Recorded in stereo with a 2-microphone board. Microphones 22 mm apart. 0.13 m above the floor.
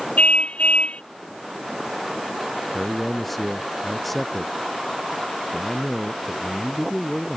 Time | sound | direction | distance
0.2 | a car horn | 85° left | ?
2.7 | a man speaking | 5° left (ahead or behind) | ?